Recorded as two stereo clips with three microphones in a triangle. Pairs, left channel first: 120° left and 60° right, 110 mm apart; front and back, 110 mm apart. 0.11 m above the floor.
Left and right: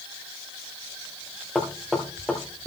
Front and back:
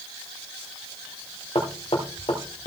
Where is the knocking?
30° left, 1.5 m.